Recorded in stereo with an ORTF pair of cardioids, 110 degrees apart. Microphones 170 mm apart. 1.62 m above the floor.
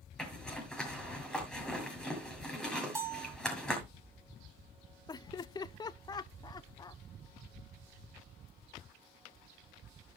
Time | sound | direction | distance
0.2 | a zipper | 5° left | 6.5 m
3.0 | a bell | 15° right | 2.5 m
5.1 | laughter | 25° left | 0.9 m